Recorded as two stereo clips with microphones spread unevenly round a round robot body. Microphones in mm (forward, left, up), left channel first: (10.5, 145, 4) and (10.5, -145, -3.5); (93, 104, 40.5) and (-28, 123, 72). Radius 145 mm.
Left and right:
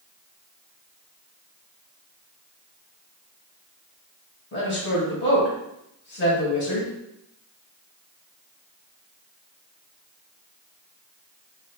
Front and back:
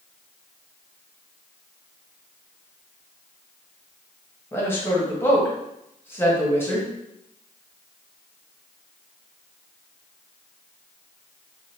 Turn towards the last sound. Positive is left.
turn(degrees=45)